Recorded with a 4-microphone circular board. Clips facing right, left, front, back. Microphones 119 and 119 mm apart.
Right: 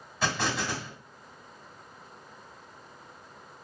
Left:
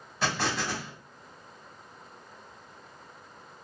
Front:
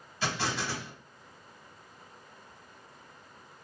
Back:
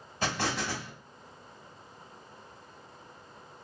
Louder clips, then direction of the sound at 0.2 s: Even, back 1 dB; straight behind.